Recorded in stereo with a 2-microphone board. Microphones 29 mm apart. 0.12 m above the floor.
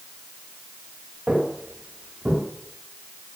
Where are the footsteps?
65° right (ahead or behind), 9.5 m; by 2.4 s 55° right (ahead or behind), 9 m.